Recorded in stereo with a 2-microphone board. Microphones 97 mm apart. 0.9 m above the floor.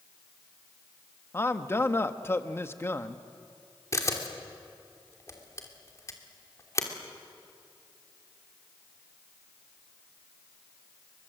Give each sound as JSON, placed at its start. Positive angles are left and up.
{"t": 1.3, "sound": "a man speaking", "side_deg": 25, "distance_m": 1.1}
{"t": 3.9, "sound": "a camera shutter", "side_deg": 35, "distance_m": 2.5}